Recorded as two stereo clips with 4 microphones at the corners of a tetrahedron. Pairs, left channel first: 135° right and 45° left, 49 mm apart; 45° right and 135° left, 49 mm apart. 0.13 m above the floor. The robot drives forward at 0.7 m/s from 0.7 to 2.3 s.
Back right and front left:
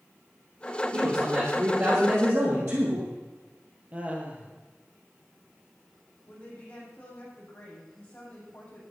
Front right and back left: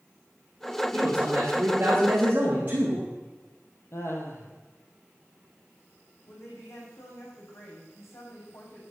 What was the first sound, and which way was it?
A man speaking, 70° left.